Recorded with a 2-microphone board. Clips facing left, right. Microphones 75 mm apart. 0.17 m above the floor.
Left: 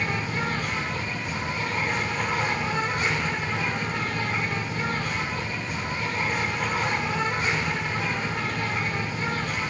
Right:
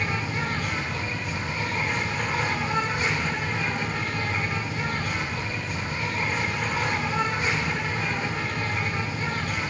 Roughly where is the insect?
Left.